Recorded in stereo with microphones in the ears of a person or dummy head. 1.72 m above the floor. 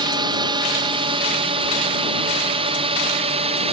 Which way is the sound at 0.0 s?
25° right (ahead or behind).